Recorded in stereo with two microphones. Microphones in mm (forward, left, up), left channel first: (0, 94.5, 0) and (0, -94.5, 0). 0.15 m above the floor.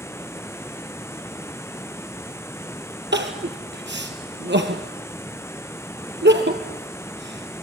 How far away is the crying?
About 2.5 m.